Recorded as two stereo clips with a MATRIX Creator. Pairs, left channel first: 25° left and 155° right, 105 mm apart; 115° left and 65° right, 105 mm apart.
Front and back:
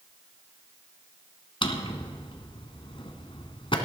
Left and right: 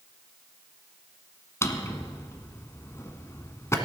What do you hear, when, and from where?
1.6 s a drawer: 50° left, 1.4 m